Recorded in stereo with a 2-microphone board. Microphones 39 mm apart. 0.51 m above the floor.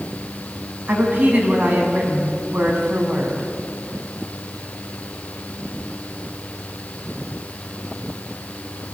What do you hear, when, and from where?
0.9 s a woman speaking: 35° right (ahead or behind), 5 m